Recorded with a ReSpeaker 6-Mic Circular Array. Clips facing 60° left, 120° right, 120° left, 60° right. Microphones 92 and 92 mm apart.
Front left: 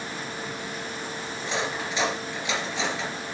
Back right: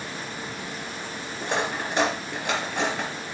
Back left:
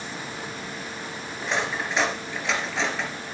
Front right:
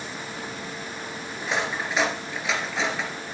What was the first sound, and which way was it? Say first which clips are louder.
Cutlery clinking: back right 3 dB, even; 145° right.